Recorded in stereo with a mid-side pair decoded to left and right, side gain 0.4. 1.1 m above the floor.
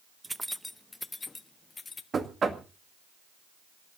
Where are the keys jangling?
25° right, 0.5 m; by 2.0 s 40° left, 1.7 m.